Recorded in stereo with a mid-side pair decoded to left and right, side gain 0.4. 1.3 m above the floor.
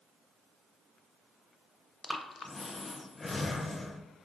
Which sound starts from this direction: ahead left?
Breathing, at 2.0 s.